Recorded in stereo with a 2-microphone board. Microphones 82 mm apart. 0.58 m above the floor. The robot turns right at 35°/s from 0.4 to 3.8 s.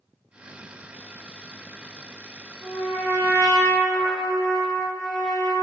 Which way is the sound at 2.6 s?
30° right (ahead or behind).